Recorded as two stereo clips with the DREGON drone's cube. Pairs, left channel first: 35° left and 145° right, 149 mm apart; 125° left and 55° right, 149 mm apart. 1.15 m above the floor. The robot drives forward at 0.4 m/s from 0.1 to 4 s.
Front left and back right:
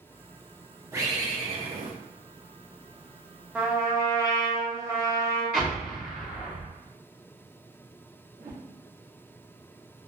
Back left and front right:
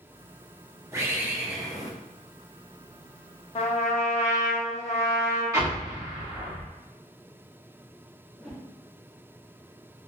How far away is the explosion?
About 1.7 m.